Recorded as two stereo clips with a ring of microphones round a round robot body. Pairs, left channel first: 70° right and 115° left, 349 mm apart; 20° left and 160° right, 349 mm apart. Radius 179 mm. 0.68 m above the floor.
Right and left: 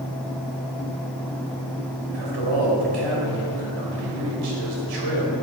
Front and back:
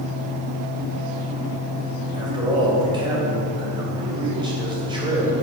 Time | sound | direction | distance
2.1 | a man speaking | 125° left | 3.5 m